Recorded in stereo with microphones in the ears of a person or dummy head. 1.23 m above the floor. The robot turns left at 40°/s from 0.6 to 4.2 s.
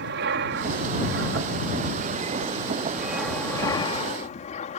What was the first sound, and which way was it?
An aircraft, 80° right.